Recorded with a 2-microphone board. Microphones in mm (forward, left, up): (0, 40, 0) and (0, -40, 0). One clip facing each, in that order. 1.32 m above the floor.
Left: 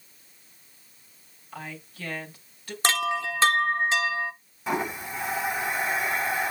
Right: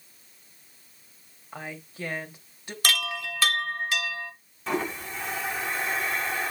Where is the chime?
25° left (ahead or behind), 1.0 m.